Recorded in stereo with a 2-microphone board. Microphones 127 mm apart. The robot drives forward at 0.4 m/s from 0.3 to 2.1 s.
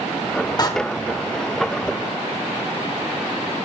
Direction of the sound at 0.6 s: 30° left (ahead or behind).